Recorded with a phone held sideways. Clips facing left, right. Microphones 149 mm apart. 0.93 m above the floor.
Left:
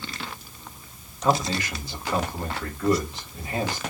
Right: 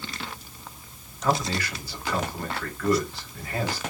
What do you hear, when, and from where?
1.2 s a man speaking: 20° left (ahead or behind), 2.5 m